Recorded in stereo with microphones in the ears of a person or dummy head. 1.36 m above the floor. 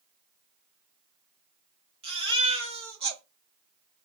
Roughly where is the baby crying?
Right.